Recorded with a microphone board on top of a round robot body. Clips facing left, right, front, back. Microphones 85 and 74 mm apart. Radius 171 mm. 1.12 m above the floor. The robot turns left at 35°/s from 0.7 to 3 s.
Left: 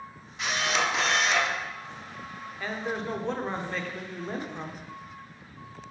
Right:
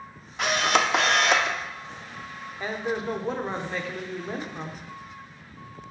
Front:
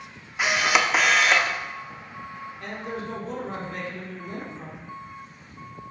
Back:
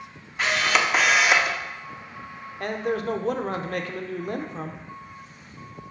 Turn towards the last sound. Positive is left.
turn(degrees=-175)